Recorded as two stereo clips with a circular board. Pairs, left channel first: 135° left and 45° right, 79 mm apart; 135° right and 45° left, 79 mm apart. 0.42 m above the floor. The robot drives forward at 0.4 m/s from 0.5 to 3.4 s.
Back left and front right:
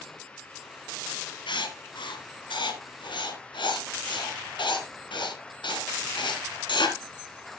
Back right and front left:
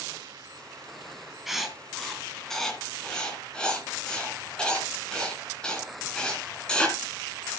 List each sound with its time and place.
1.5 s writing: 135° left, 1.8 m; by 7.0 s 145° left, 2.5 m